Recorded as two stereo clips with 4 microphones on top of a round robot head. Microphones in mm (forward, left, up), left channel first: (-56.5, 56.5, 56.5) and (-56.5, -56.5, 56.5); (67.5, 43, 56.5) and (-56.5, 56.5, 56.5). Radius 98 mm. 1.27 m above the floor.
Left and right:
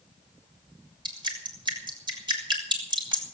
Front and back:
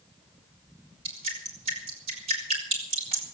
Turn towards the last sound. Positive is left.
turn(degrees=-135)